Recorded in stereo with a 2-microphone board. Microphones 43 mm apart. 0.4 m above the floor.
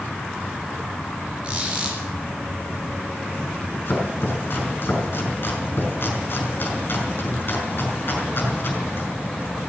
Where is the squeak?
25° right (ahead or behind), 4.5 m.